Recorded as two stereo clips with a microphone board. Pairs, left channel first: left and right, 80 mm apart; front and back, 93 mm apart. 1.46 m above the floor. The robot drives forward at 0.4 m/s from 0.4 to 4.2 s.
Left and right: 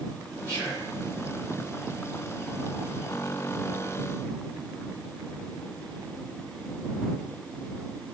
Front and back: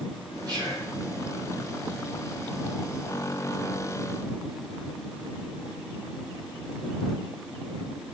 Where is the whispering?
140° right, 3.5 m; by 0.9 s 145° right, 3.5 m.